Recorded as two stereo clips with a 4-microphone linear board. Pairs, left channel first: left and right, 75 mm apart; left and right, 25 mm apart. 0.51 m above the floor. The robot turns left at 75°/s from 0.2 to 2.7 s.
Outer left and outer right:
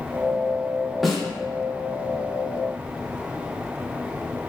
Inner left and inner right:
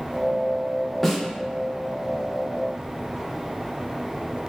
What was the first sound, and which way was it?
A snare drum, centre (ahead or behind).